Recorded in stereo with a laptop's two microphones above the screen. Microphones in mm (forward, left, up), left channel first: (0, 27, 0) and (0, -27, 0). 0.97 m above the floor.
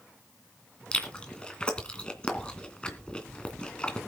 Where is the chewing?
15° left (ahead or behind), 2.5 m.